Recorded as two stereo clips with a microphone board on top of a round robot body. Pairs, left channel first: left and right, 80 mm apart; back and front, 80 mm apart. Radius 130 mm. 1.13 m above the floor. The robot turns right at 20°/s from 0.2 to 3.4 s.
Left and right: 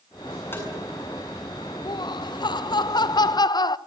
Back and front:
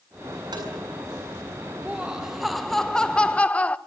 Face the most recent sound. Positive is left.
turn(degrees=110)